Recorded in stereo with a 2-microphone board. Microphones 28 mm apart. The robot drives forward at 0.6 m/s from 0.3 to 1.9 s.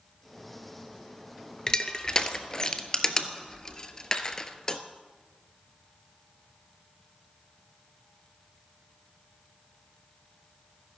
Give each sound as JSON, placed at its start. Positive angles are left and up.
{"t": 1.7, "sound": "crushing", "side_deg": 25, "distance_m": 0.7}